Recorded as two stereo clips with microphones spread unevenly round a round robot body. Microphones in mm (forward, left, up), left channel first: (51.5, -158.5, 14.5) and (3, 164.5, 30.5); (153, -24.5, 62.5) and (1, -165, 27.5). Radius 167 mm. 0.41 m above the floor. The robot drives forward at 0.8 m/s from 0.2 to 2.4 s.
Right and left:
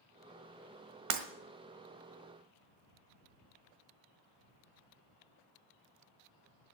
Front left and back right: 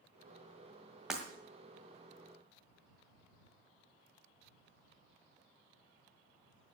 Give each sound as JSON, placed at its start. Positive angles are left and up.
{"t": 1.1, "sound": "breaking glass", "azimuth_deg": 140, "distance_m": 1.5}